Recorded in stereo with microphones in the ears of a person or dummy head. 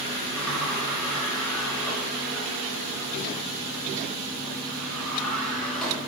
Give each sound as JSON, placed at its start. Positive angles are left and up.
{"t": 0.4, "sound": "a sliding door", "side_deg": 5, "distance_m": 1.1}